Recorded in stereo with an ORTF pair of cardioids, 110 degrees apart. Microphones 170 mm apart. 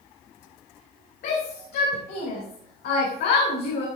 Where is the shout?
65° left, 4.5 m; by 3.9 s 80° left, 3.5 m.